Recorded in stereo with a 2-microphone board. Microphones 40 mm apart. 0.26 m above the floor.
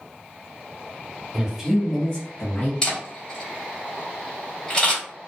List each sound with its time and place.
1.3 s a man speaking: 20° right (ahead or behind), 1.1 m; by 2.7 s 50° left (ahead or behind), 1.4 m
2.8 s a camera shutter: 20° left (ahead or behind), 1.7 m